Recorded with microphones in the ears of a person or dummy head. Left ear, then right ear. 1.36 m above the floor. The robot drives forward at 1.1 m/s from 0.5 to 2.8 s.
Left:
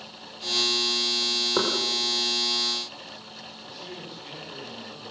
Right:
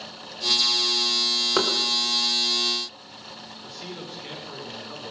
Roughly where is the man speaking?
Right.